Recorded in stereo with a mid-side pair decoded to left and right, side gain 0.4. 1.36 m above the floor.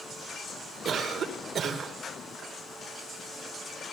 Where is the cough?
65° right, 1.9 m.